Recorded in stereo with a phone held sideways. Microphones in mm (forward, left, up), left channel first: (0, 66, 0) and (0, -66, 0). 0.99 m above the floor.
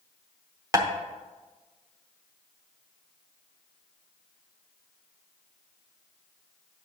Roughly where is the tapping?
Right.